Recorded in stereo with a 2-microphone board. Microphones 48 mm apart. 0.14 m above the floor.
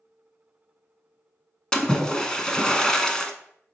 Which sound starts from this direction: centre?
A splash, at 1.7 s.